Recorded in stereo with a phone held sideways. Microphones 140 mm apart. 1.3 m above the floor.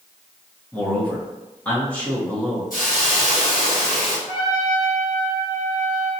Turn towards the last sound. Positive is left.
turn(degrees=35)  # may be behind; listen again after turning